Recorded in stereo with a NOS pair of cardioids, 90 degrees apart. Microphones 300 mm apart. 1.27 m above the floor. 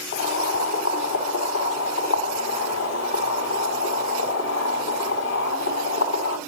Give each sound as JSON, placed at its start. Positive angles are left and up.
{"t": 0.1, "sound": "boiling", "azimuth_deg": 60, "distance_m": 5.0}